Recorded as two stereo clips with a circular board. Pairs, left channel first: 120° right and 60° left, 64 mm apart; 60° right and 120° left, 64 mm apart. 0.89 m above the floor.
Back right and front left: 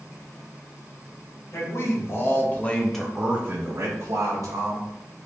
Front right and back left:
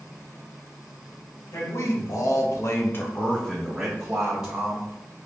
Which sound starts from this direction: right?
A man speaking, at 1.5 s.